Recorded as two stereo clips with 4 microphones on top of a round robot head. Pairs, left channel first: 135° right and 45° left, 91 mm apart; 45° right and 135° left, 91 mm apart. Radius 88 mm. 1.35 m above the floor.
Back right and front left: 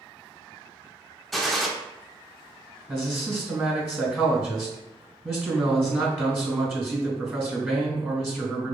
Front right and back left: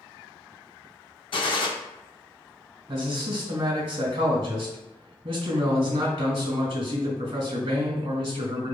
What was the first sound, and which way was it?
A gunshot, 45° right.